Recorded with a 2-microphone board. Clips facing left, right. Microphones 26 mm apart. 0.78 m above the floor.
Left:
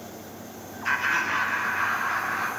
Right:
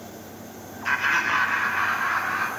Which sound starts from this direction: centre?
Laughter, at 0.8 s.